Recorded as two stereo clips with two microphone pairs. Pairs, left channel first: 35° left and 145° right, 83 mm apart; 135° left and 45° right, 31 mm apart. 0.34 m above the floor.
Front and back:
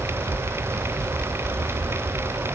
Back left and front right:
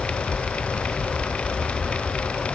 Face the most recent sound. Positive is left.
No sound to turn to.